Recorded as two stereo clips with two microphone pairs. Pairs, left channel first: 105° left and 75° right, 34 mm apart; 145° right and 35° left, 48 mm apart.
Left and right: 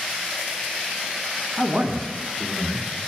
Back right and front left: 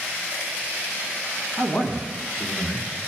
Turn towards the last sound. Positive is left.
turn(degrees=-80)